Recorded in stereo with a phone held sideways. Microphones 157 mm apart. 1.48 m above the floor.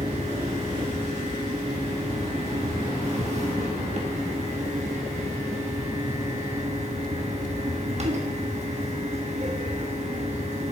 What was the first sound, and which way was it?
A fan, 45° right (ahead or behind).